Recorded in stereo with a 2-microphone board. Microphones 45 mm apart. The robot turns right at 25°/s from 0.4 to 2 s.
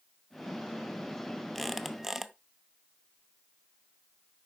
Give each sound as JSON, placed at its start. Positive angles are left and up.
{"t": 1.6, "sound": "a squeak", "side_deg": 0, "distance_m": 0.6}